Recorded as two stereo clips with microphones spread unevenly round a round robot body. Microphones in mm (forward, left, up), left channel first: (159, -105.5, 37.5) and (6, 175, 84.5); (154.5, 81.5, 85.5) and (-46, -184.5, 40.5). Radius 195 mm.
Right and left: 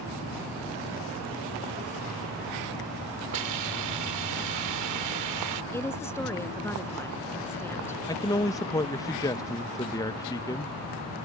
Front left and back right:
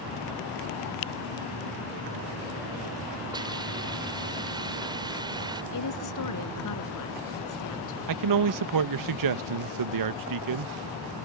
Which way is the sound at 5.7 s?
20° left.